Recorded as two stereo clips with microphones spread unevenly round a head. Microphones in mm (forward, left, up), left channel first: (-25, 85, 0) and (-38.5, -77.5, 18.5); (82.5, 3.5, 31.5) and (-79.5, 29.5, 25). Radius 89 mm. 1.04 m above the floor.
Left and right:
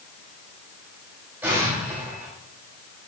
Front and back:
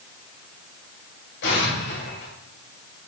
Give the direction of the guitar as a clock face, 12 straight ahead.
I don't hear a guitar.